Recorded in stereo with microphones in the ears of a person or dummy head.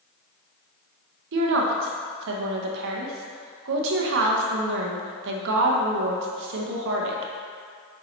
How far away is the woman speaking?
About 0.9 m.